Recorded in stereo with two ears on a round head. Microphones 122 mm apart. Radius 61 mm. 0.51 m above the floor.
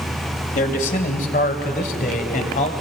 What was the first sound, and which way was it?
A man speaking, 60° left (ahead or behind).